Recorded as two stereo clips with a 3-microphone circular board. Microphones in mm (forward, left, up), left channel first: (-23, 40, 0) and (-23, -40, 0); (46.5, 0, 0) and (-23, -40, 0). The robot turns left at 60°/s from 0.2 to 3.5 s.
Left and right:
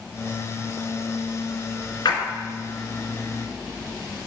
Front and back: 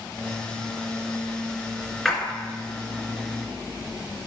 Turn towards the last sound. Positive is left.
turn(degrees=30)